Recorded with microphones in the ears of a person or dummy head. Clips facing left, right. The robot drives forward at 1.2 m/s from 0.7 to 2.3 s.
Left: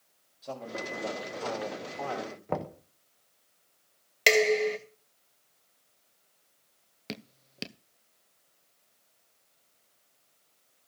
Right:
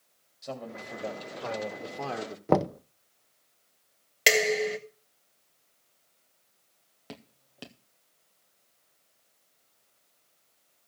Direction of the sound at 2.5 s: 60° right (ahead or behind).